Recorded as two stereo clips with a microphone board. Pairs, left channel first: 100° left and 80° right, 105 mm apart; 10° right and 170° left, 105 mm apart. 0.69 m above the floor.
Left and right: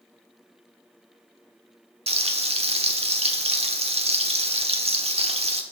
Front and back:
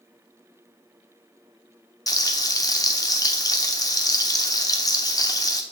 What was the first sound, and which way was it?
Frying, 65° right.